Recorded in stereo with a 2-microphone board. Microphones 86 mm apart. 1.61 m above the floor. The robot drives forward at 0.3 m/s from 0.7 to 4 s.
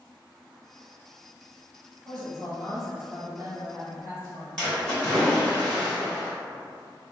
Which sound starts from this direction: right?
A woman speaking, at 2.0 s.